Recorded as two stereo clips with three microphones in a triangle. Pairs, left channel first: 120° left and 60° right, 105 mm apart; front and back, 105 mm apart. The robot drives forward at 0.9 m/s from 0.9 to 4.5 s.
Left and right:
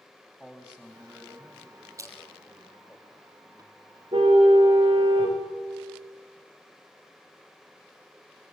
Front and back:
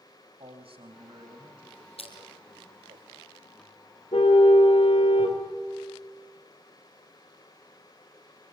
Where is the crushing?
5° right, 3 m.